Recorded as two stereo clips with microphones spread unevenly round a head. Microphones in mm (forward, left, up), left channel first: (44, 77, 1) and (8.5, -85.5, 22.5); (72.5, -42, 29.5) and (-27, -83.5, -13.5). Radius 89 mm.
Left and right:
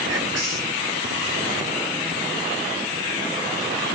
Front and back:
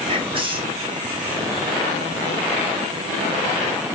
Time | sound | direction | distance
0.1 | whispering | 130° right | 1.6 m